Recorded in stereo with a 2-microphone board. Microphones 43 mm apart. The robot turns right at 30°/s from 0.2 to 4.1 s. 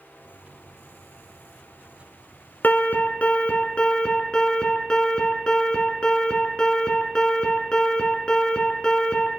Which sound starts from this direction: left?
An alarm, at 2.6 s.